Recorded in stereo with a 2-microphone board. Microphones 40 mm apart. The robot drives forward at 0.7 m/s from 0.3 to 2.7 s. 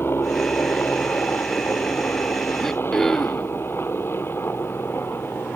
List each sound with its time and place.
0.0 s a helicopter: 60° left (ahead or behind); by 5.6 s 65° left (ahead or behind)
2.6 s throat clearing: 10° left (ahead or behind)